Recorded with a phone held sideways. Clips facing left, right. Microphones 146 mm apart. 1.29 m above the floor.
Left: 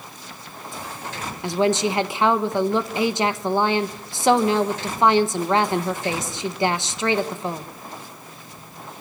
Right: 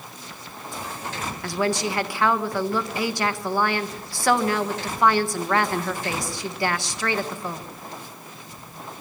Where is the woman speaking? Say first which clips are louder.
Left 5 dB; 20° left (ahead or behind), 1.2 m.